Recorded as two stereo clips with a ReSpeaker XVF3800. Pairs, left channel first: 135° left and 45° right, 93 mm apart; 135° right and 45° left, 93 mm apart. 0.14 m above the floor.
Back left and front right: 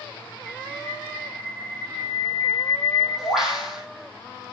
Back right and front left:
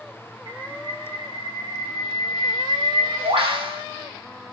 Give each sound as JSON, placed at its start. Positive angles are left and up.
{"t": 0.5, "sound": "a bird", "azimuth_deg": 40, "distance_m": 3.0}